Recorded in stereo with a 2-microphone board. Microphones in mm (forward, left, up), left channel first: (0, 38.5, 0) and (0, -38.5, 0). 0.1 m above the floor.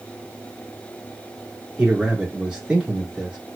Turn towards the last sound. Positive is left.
turn(degrees=-15)  # may be behind; listen again after turning